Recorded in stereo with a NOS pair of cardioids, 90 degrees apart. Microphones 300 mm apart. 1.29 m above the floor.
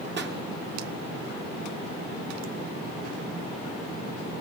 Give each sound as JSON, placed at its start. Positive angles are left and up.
{"t": 0.2, "sound": "a pop", "azimuth_deg": -40, "distance_m": 1.4}